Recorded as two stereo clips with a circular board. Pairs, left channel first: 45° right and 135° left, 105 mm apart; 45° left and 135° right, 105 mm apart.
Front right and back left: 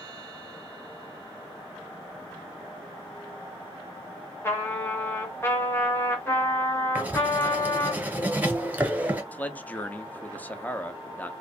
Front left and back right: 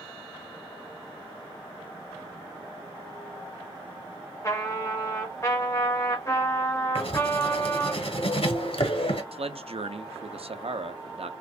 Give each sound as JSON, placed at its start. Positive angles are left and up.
{"t": 4.4, "sound": "a trumpet", "azimuth_deg": 10, "distance_m": 1.3}
{"t": 7.0, "sound": "writing", "azimuth_deg": 60, "distance_m": 1.0}
{"t": 9.3, "sound": "a man speaking", "azimuth_deg": -120, "distance_m": 0.6}